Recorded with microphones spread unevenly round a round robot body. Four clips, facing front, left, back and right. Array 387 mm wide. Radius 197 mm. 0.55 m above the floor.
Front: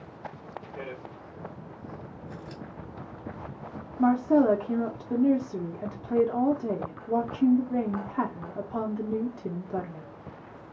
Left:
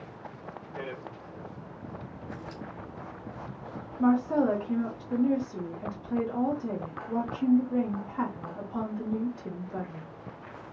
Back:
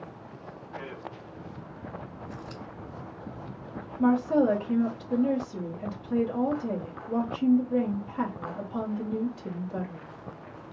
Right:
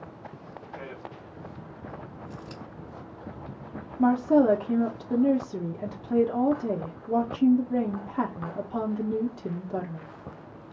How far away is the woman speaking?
About 1.1 m.